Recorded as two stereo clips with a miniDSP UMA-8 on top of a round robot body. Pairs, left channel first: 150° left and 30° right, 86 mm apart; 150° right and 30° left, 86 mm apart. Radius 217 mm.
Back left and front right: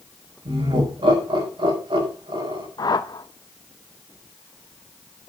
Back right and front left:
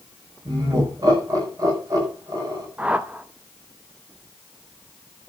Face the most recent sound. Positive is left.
turn(degrees=105)